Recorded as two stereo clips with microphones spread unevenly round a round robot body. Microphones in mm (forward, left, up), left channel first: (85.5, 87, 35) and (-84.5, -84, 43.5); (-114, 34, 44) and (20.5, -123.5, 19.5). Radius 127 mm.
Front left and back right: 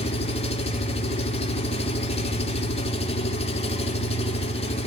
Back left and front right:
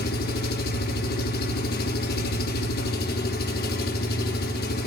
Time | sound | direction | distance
0.0 | an engine running | 100° left | 1.3 m